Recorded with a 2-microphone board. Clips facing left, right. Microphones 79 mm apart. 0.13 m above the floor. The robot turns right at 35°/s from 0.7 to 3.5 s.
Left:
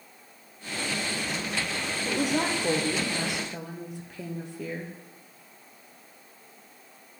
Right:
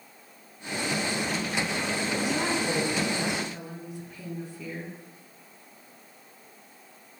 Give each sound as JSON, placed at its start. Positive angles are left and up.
{"t": 2.0, "sound": "a woman speaking", "azimuth_deg": 55, "distance_m": 2.5}